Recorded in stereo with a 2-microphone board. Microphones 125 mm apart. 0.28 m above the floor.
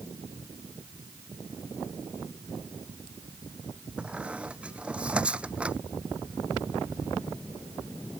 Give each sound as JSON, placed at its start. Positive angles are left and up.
{"t": 4.0, "sound": "a squeak", "side_deg": -10}